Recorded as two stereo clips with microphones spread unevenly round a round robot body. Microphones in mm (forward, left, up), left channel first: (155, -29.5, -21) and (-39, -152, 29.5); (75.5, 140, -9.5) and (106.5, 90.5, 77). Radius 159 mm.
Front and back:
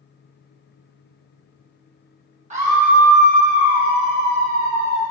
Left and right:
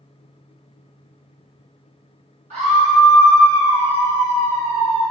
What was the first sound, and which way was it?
A scream, 85° right.